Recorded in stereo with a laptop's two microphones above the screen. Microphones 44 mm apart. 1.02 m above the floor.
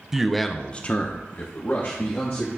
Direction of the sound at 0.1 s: 10° right (ahead or behind).